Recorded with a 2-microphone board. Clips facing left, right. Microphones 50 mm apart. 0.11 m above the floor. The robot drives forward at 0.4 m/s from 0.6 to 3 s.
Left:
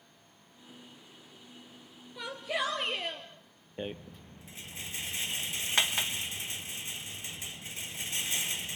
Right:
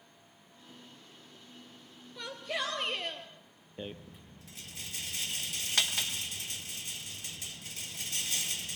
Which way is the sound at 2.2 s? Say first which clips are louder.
Left 3 dB; 10° left (ahead or behind).